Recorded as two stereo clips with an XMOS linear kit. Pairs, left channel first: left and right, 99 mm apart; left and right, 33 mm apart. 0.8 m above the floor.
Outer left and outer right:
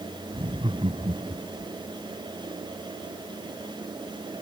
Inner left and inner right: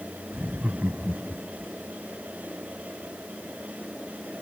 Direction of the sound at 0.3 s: 75° right (ahead or behind).